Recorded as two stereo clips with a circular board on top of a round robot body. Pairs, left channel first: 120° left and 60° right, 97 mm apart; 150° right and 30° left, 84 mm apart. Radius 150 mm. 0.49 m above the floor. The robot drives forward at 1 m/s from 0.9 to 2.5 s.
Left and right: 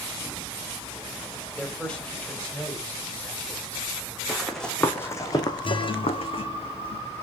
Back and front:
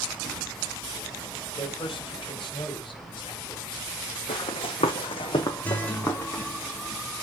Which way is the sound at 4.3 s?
145° right.